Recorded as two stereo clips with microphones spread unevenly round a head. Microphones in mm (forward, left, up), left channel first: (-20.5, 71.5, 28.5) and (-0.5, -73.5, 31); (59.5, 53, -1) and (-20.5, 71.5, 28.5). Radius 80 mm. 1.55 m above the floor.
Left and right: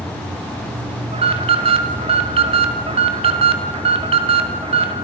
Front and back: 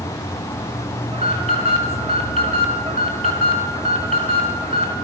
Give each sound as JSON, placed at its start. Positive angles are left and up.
{"t": 0.0, "sound": "an insect", "azimuth_deg": -10, "distance_m": 7.5}
{"t": 1.1, "sound": "an alarm", "azimuth_deg": -135, "distance_m": 2.5}